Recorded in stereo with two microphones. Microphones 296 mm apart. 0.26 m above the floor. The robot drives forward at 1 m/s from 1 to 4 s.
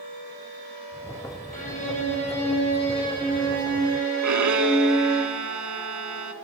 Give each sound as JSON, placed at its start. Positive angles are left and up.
{"t": 1.5, "sound": "a violin", "side_deg": 25, "distance_m": 2.5}
{"t": 4.2, "sound": "a violin", "side_deg": -80, "distance_m": 0.6}